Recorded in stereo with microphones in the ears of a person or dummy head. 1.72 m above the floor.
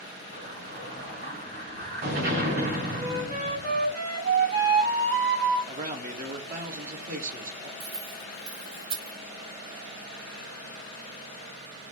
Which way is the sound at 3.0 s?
65° right (ahead or behind).